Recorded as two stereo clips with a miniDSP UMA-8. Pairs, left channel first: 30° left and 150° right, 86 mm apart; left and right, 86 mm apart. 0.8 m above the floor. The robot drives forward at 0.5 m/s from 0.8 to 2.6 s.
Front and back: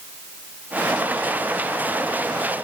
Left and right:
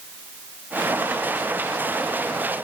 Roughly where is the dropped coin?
No dropped coin in this recording.